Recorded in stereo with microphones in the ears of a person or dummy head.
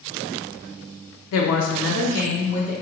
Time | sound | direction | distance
1.3 | a woman speaking | 70° left (ahead or behind) | 0.5 m